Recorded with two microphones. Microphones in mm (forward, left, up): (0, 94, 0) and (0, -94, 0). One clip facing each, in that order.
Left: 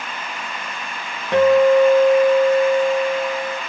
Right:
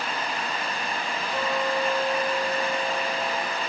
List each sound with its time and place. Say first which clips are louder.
1.3 s a guitar: left 16 dB; 70° left (ahead or behind), 0.7 m